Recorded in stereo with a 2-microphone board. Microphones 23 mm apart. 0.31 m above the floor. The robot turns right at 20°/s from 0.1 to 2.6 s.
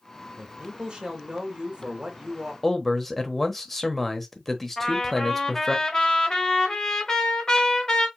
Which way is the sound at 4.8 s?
30° left (ahead or behind).